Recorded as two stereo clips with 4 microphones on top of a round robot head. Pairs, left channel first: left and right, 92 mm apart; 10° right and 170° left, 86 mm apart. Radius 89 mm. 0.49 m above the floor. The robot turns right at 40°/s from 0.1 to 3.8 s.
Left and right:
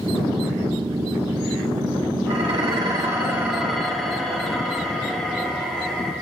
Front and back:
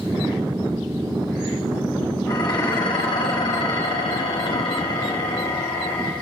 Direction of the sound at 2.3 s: 60° right.